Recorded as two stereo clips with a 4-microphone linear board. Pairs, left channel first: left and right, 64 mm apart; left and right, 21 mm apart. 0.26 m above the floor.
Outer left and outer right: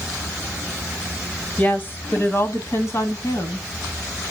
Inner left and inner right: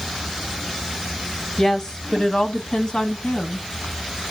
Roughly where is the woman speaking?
Left.